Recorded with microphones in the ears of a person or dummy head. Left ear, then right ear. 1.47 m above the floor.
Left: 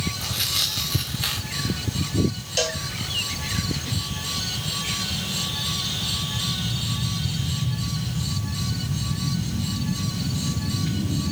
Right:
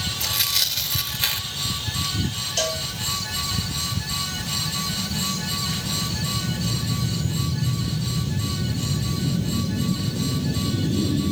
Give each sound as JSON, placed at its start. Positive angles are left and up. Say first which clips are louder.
{"t": 0.2, "sound": "tearing paper", "louder": "right 2 dB", "side_deg": -15, "distance_m": 1.4}
{"t": 2.6, "sound": "a cowbell", "louder": "left 1 dB", "side_deg": 30, "distance_m": 1.2}